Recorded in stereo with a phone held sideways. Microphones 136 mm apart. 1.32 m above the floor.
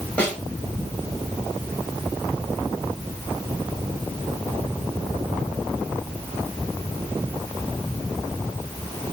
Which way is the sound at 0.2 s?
10° left (ahead or behind).